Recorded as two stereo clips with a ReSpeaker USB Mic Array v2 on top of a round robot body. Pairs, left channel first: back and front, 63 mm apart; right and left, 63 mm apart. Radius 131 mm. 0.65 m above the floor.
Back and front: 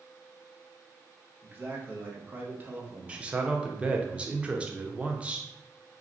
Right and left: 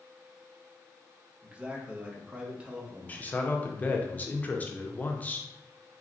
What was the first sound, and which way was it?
A man speaking, 30° left.